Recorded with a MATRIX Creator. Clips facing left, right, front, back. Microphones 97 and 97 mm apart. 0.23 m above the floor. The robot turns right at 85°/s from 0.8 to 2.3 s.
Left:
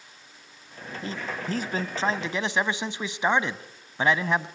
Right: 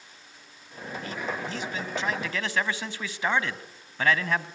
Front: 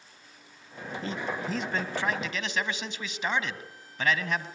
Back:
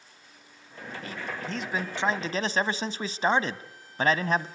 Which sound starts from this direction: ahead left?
A man speaking, at 1.0 s.